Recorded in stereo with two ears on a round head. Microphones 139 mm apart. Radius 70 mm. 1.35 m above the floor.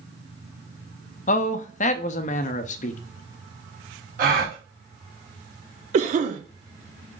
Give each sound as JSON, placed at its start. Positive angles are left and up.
{"t": 1.3, "sound": "a man speaking", "side_deg": 45, "distance_m": 0.5}
{"t": 4.2, "sound": "a gasp", "side_deg": -55, "distance_m": 1.5}
{"t": 5.9, "sound": "a cough", "side_deg": -45, "distance_m": 0.6}